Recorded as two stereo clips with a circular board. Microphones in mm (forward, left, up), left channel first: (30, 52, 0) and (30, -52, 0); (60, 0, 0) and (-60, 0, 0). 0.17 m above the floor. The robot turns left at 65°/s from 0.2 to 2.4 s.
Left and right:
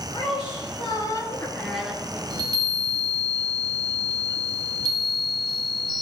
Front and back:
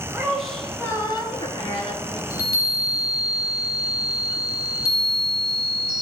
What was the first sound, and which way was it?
A woman speaking, 105° left.